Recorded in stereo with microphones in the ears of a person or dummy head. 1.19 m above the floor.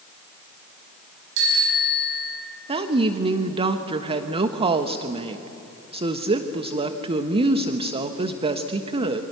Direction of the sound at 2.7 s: 30° right (ahead or behind).